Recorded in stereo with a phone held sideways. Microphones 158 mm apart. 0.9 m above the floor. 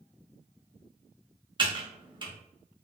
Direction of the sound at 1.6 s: 30° right (ahead or behind).